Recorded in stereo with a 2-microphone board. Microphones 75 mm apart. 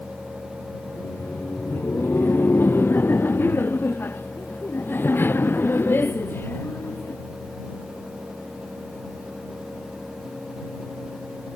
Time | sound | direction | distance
0.9 | laughter | 30° left (ahead or behind) | ?